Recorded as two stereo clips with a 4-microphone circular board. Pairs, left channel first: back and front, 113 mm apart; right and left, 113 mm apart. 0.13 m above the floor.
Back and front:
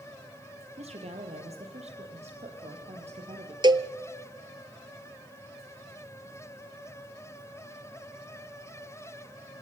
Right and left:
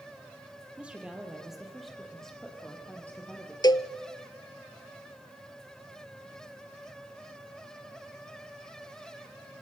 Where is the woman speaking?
10° left, 4 m; by 3.5 s 15° right, 5 m.